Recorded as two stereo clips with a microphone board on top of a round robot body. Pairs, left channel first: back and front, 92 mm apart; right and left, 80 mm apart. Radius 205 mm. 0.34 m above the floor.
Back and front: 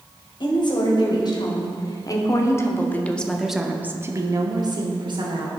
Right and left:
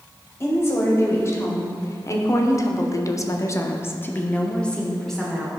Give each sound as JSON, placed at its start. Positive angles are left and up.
{"t": 0.4, "sound": "a woman speaking", "azimuth_deg": -145, "distance_m": 2.5}